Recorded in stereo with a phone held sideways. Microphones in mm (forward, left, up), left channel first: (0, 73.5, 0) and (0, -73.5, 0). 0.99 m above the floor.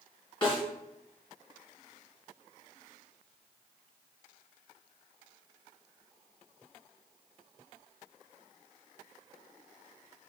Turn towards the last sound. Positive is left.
turn(degrees=30)  # may be behind; listen again after turning